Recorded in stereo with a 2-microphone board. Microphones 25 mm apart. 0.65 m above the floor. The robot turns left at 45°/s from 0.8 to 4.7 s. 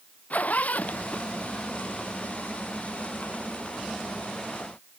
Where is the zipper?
70° left (ahead or behind); by 1.7 s 25° left (ahead or behind).